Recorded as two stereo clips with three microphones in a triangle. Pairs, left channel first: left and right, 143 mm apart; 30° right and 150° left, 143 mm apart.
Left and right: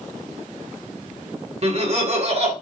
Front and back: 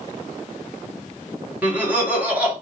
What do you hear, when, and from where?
1.6 s laughter: 130° right, 1.5 m